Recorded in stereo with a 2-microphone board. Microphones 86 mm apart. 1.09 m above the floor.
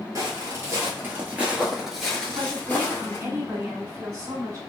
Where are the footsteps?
45° right (ahead or behind), 1.4 m; by 3.2 s 30° left (ahead or behind), 1.3 m.